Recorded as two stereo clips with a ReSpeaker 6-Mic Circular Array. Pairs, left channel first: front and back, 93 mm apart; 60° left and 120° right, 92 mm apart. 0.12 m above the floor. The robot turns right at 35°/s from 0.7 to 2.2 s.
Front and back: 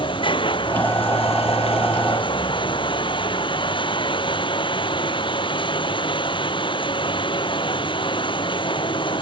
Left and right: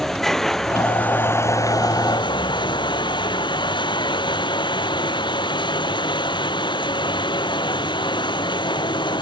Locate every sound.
0.0 s running water: 25° right; by 9.2 s 25° left